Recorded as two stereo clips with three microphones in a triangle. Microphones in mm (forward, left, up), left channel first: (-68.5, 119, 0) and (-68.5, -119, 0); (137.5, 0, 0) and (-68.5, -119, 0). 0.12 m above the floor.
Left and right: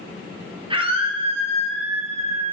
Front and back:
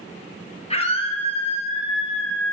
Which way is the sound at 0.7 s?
30° right.